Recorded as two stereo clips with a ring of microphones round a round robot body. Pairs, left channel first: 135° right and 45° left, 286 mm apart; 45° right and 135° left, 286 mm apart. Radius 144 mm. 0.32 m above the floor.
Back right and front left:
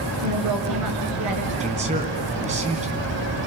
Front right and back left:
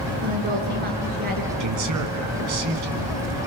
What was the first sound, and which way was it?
A woman speaking, 75° left.